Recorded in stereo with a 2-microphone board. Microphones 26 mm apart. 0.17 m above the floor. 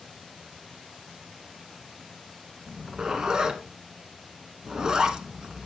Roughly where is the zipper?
Right.